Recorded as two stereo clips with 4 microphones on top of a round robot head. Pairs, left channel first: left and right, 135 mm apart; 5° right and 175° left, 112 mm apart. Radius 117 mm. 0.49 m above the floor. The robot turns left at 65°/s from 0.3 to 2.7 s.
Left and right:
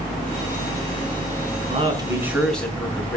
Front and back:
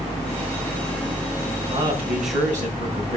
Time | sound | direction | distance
1.7 | a man speaking | 130° right | 5.5 m